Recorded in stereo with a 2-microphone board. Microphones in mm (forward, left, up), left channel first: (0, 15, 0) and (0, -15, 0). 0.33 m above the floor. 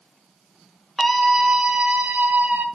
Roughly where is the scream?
Centre.